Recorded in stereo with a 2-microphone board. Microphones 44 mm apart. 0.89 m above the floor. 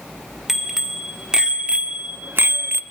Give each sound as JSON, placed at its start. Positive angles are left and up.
{"t": 0.5, "sound": "a bicycle bell", "side_deg": -5, "distance_m": 2.0}